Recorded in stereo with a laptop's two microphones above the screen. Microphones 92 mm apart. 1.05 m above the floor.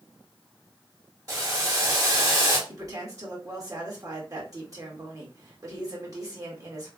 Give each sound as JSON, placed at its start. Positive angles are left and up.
{"t": 1.3, "sound": "boiling", "side_deg": -35, "distance_m": 2.0}
{"t": 2.7, "sound": "a woman speaking", "side_deg": -35, "distance_m": 1.9}